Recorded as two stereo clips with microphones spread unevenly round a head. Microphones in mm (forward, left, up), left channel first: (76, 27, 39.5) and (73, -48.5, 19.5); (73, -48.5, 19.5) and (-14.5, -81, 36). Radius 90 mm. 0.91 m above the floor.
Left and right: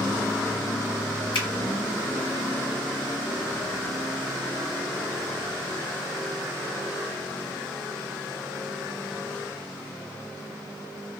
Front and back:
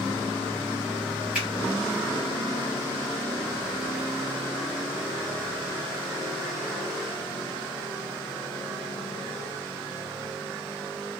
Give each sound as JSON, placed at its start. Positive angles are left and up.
{"t": 1.3, "sound": "a finger snap", "azimuth_deg": 115, "distance_m": 0.6}